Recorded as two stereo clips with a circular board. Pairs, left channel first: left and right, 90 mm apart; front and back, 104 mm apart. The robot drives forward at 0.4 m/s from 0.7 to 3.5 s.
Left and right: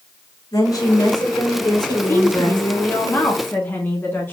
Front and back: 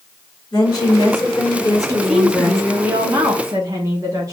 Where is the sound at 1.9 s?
90° left, 1.0 m; by 4.3 s 145° left, 1.2 m.